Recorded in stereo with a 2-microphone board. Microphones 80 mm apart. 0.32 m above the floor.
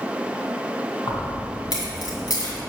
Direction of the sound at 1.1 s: 55° left (ahead or behind).